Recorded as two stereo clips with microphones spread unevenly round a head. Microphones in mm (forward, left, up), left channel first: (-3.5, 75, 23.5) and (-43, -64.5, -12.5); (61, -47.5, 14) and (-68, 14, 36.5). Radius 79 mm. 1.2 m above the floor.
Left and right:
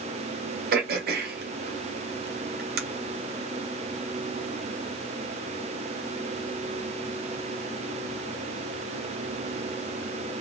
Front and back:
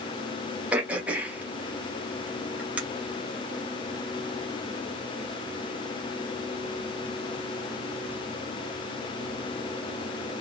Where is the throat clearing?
130° right, 0.8 m.